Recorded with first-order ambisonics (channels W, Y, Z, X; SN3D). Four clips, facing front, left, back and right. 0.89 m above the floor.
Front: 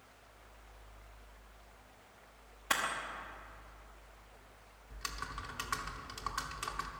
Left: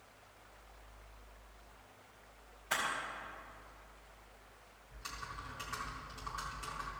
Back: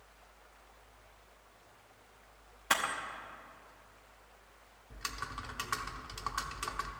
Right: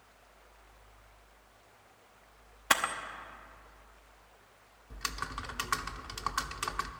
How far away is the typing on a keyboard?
About 0.6 m.